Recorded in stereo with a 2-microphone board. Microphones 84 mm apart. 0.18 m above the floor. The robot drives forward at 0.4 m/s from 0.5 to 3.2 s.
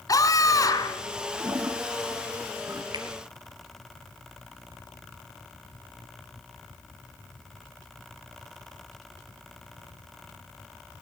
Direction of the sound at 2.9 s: 50° right (ahead or behind).